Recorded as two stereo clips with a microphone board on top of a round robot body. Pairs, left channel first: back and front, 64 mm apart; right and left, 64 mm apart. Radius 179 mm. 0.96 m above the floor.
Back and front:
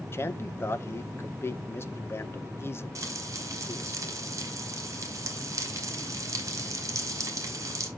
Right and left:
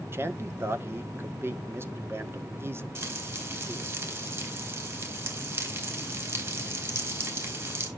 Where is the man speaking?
135° left, 1.4 m.